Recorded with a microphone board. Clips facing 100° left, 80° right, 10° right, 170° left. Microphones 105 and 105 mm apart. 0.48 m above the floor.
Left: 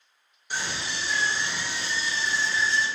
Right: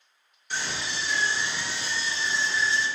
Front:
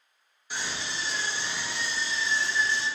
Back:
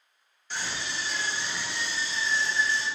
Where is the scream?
50° left, 0.7 m; by 2.9 s 5° right, 1.5 m.